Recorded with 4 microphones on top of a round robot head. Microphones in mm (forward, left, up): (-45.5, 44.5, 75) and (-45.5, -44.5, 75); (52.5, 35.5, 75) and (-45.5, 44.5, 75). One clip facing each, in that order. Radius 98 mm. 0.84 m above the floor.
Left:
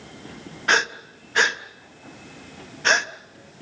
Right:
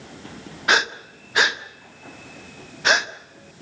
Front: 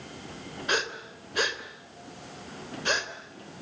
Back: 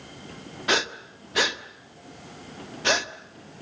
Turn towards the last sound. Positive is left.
turn(degrees=-175)